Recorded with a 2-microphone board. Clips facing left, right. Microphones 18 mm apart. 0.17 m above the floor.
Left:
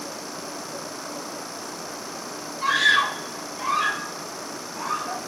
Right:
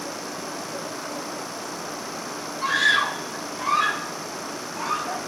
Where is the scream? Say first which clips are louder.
Left 1 dB; 10° left (ahead or behind), 4 m; by 5.2 s 40° right (ahead or behind), 4.5 m.